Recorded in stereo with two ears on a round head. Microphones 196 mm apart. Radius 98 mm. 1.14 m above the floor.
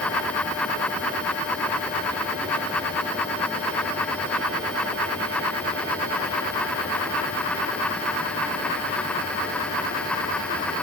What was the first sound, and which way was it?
Only background noise.